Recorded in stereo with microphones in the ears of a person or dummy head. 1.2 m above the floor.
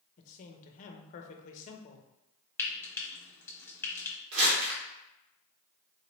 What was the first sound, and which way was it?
A man speaking, 40° left (ahead or behind).